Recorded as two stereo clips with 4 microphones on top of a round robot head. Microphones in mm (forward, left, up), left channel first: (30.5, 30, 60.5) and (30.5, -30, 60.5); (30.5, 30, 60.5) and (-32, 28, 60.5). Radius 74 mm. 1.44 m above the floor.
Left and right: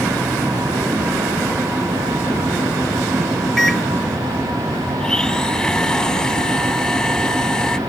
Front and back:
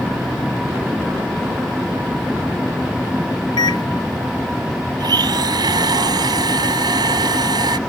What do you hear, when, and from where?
3.6 s a microwave: 5° left
5.0 s a blender: 170° left